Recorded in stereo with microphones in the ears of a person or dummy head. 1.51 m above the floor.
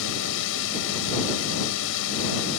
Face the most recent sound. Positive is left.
turn(degrees=70)  # may be behind; listen again after turning